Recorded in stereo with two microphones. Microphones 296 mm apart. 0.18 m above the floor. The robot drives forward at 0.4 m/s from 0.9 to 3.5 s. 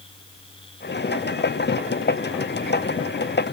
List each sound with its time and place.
Only background noise.